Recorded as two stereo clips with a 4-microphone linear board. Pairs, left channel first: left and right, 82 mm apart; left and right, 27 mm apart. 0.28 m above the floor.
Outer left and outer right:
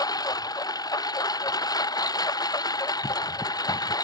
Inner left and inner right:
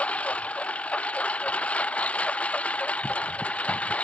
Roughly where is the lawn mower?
Left.